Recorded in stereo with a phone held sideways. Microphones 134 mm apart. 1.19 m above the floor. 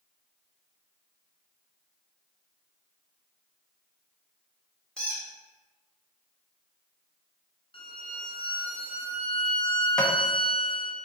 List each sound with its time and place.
5.0 s a squeak: 5° left (ahead or behind), 0.9 m
7.7 s a violin: 40° left (ahead or behind), 0.5 m
10.0 s tapping: 5° left (ahead or behind), 0.5 m